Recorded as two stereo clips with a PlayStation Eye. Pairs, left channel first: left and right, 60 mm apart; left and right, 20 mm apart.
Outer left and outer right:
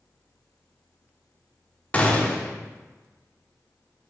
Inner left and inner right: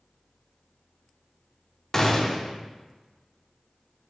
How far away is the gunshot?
About 0.9 m.